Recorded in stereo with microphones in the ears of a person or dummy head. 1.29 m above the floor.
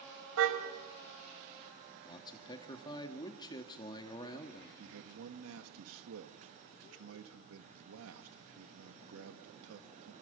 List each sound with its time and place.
0.4 s a car horn: 70° right (ahead or behind), 3.5 m
2.0 s a man speaking: 25° left (ahead or behind), 1.9 m
4.8 s a man speaking: 80° right, 2.5 m